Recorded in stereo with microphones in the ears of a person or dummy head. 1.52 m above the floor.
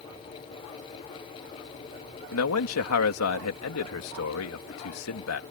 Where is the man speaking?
85° left.